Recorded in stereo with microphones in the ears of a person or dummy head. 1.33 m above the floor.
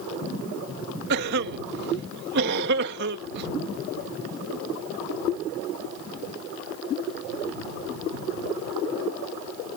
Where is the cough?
50° right (ahead or behind).